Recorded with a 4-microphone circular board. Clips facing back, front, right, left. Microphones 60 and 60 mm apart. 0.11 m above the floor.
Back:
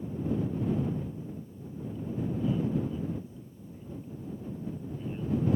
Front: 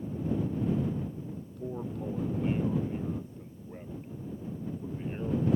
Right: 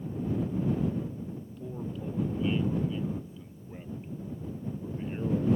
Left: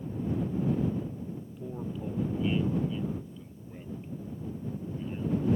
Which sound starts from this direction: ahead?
A man speaking, at 1.4 s.